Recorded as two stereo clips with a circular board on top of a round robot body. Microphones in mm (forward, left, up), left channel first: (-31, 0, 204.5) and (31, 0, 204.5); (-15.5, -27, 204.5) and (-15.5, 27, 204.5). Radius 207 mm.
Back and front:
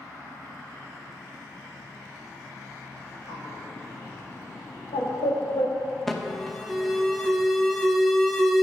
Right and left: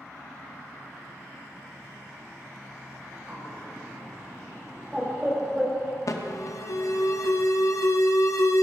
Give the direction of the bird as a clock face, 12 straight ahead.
6 o'clock.